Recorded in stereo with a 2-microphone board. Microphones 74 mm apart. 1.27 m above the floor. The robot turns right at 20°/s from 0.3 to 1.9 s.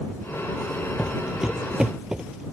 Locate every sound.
1.0 s footsteps: 5° right (ahead or behind); by 2.4 s 10° right (ahead or behind)